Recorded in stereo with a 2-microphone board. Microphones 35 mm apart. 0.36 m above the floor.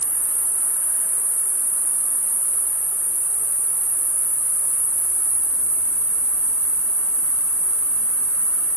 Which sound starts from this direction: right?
An insect, at 0.0 s.